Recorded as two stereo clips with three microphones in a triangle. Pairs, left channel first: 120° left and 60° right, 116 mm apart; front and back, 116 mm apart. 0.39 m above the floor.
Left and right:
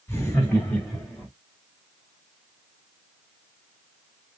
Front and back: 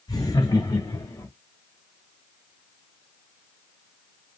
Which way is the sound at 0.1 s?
50° left.